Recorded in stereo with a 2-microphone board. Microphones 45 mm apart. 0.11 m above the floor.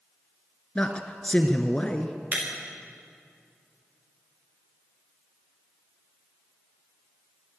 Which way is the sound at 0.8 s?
25° left (ahead or behind).